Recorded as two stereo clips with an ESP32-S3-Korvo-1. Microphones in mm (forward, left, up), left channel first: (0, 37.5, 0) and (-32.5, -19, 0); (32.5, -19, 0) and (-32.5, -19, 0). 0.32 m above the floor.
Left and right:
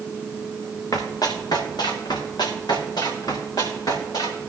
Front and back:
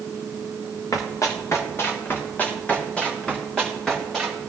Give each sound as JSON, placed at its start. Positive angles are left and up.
{"t": 0.9, "sound": "running footsteps", "azimuth_deg": 30, "distance_m": 2.0}